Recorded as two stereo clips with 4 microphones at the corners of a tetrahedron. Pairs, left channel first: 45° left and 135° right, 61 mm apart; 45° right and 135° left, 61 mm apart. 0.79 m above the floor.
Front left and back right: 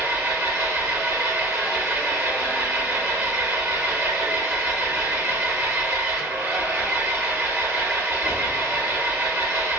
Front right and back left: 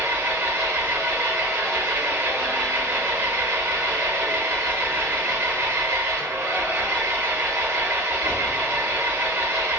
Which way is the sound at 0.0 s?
175° right.